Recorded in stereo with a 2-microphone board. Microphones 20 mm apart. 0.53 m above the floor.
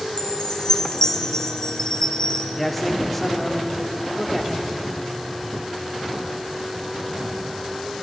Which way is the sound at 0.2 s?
30° left (ahead or behind).